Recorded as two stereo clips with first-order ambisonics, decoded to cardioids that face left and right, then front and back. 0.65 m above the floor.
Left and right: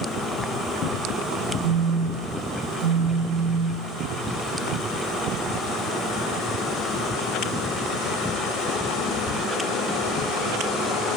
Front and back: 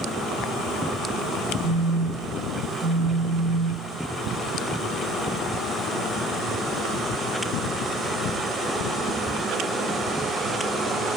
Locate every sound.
1.6 s a phone buzzing: 110° right, 6.5 m